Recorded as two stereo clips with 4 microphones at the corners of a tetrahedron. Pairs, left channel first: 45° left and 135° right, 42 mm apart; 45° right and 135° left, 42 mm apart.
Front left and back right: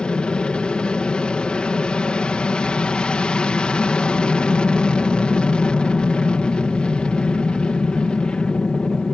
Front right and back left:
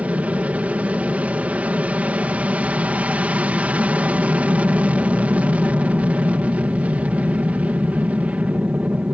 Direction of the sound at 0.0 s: 100° left.